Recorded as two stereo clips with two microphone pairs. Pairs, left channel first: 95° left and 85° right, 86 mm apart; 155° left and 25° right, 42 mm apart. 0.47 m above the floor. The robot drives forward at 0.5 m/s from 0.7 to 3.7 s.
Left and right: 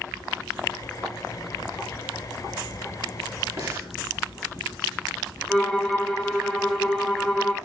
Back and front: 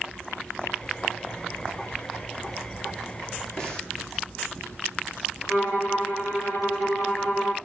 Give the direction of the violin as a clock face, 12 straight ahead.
6 o'clock.